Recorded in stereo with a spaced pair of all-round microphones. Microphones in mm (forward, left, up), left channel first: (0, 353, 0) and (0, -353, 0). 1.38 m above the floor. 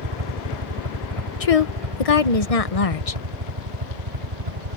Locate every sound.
0.0 s a helicopter: 40° right (ahead or behind); by 4.8 s 65° right (ahead or behind)
1.4 s a woman speaking: 55° left (ahead or behind)